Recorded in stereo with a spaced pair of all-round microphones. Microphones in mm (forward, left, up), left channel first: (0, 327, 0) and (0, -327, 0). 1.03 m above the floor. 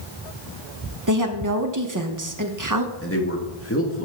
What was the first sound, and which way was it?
A woman speaking, 30° right (ahead or behind).